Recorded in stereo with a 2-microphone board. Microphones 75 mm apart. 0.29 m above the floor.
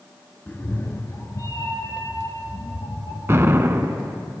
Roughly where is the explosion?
Right.